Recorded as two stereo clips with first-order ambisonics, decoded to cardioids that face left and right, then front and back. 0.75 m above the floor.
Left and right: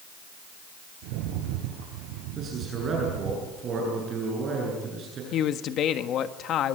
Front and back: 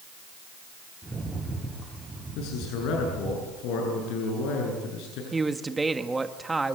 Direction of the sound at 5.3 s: 105° left.